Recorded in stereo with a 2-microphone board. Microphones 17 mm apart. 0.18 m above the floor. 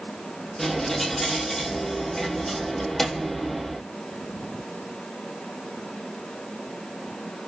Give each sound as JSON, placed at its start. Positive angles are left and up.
{"t": 0.6, "sound": "a dropped coin", "side_deg": 10, "distance_m": 1.8}